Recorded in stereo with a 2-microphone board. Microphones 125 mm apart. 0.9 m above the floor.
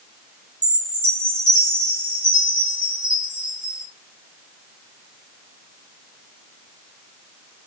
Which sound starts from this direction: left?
A chime, at 0.6 s.